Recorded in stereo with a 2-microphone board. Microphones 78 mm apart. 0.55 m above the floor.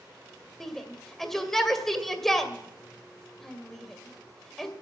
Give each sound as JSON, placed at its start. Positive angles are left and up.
{"t": 0.6, "sound": "a shout", "side_deg": 5, "distance_m": 2.0}